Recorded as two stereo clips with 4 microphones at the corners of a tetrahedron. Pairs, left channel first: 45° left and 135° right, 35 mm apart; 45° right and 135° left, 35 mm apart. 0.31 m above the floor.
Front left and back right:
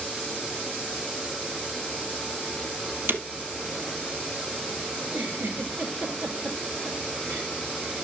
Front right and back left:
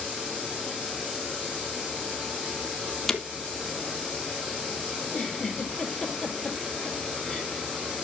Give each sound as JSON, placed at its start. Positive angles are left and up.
{"t": 3.1, "sound": "breaking glass", "azimuth_deg": -130, "distance_m": 1.2}
{"t": 5.0, "sound": "a giggle", "azimuth_deg": -130, "distance_m": 3.5}